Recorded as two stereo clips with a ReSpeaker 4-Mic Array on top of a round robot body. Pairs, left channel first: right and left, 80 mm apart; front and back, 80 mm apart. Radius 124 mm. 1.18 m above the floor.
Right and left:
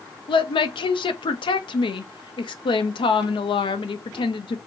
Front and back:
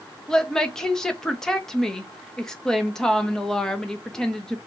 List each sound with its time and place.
0.3 s a woman speaking: 85° right, 0.8 m